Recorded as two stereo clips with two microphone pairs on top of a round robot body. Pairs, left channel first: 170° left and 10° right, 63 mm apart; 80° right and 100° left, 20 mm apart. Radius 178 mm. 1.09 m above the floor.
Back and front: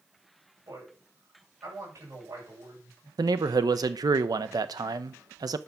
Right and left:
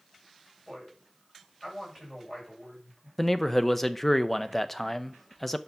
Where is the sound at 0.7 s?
20° left, 7.5 m.